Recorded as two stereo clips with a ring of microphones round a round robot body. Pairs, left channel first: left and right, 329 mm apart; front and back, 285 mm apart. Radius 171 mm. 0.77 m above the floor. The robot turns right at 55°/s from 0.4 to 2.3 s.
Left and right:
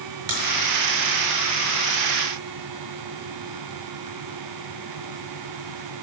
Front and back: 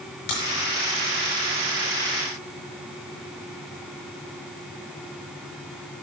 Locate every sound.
0.3 s a crack: 40° right, 5.5 m